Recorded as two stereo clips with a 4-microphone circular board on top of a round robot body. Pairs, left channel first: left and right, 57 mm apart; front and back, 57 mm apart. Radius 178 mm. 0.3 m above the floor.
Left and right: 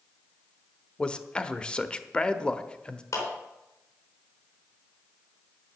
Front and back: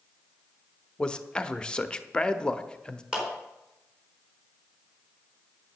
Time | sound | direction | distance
1.0 | a man speaking | 45° left | 1.1 m
3.1 | a clap | 100° left | 4 m